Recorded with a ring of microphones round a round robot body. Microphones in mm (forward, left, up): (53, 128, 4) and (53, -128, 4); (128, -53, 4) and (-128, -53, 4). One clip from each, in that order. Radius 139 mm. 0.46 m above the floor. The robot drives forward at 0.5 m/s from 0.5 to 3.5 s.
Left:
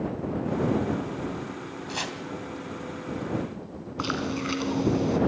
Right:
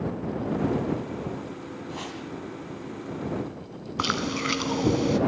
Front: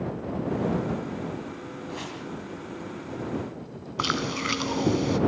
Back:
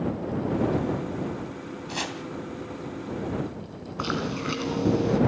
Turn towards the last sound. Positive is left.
turn(degrees=-40)